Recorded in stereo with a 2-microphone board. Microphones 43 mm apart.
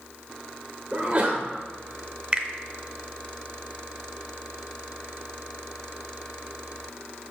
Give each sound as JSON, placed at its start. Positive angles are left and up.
{"t": 0.9, "sound": "a sneeze", "side_deg": -30, "distance_m": 1.0}
{"t": 2.3, "sound": "a finger snap", "side_deg": -25, "distance_m": 0.6}